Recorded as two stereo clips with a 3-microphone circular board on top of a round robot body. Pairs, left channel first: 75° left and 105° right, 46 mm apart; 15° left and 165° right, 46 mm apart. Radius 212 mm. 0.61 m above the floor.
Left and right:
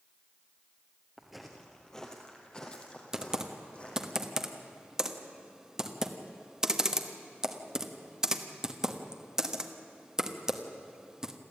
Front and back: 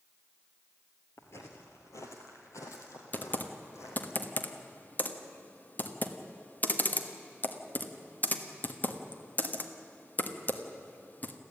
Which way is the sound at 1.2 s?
25° right.